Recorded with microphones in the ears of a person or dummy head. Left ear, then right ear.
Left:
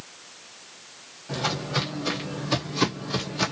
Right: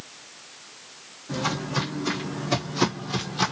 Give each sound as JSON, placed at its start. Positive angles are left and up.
{"t": 1.3, "sound": "footsteps", "side_deg": 15, "distance_m": 1.3}